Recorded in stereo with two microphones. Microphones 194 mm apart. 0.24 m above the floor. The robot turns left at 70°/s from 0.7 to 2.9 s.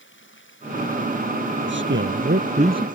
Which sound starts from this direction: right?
A man speaking, at 1.6 s.